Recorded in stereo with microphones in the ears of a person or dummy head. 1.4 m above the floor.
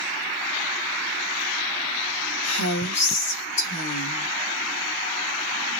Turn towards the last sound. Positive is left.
turn(degrees=85)